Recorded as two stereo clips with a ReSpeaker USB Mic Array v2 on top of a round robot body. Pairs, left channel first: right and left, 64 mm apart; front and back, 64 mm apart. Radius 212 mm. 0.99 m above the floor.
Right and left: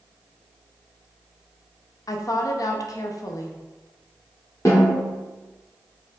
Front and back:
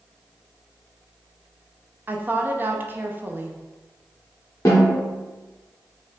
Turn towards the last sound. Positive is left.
turn(degrees=-50)